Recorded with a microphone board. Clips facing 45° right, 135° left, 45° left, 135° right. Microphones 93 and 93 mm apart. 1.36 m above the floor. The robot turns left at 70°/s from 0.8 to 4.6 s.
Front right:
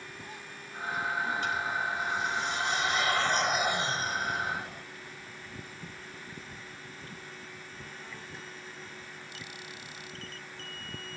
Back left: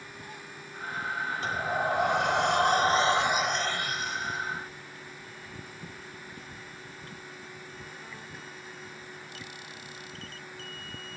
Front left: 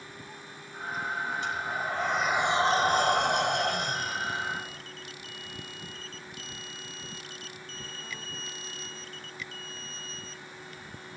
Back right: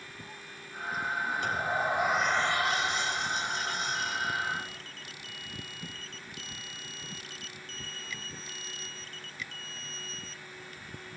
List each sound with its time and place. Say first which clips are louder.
1.4 s a sliding door: back left 2 dB, back right 2 dB; 170° right; by 4.8 s 35° right